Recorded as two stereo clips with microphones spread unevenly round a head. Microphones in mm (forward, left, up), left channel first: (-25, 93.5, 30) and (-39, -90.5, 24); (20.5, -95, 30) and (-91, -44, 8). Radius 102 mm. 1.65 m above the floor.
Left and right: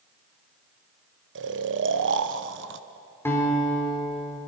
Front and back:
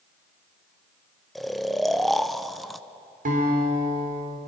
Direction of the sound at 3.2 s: 160° left.